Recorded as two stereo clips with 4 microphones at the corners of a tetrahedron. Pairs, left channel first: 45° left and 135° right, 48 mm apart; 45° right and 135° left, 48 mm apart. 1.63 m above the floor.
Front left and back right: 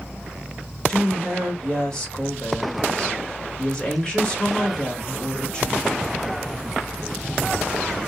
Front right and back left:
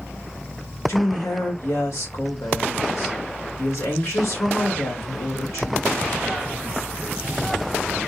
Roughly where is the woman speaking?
Ahead right.